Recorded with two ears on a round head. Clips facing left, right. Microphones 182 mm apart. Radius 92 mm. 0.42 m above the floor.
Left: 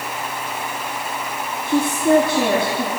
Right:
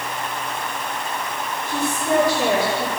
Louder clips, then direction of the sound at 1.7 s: Left 7 dB; 50° left (ahead or behind).